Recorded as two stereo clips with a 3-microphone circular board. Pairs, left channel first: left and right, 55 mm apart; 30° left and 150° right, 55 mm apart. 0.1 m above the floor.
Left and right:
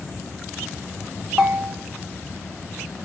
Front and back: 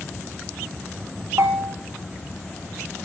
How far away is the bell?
About 1.0 m.